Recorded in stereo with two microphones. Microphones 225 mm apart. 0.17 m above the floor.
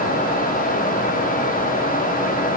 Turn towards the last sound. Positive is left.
No sound to turn to.